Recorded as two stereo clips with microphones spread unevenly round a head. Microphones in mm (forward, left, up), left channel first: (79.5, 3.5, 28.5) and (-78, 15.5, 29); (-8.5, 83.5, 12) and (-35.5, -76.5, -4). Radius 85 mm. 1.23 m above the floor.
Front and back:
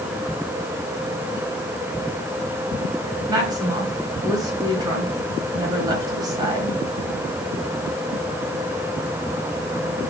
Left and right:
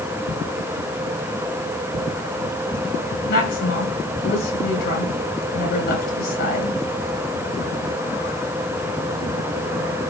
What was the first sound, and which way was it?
A woman speaking, 110° left.